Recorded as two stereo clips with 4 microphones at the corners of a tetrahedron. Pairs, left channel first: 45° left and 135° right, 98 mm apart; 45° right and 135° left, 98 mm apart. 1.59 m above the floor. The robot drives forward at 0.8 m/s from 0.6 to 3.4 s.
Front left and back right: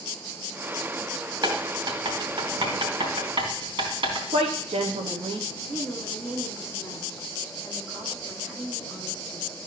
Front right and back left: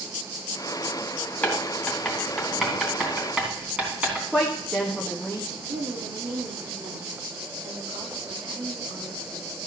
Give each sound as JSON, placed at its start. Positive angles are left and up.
{"t": 1.4, "sound": "writing", "azimuth_deg": -115, "distance_m": 2.0}
{"t": 4.3, "sound": "a woman speaking", "azimuth_deg": -130, "distance_m": 1.1}
{"t": 5.7, "sound": "a woman speaking", "azimuth_deg": 150, "distance_m": 2.5}